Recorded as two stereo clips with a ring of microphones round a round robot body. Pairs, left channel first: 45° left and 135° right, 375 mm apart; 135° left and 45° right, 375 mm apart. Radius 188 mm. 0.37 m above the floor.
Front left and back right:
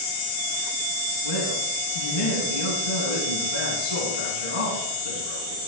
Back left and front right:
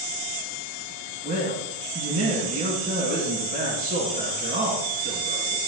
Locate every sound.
1.2 s a man speaking: 25° left, 3 m